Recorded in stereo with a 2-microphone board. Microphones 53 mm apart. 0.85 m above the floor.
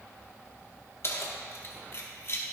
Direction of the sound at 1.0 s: 50° left (ahead or behind).